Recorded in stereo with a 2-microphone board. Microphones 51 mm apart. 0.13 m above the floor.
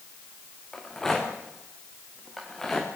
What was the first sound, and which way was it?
A rattle, 5° left (ahead or behind).